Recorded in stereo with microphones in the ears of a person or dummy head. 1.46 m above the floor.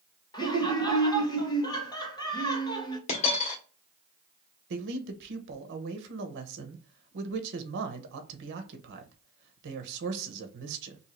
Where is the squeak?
I don't hear a squeak.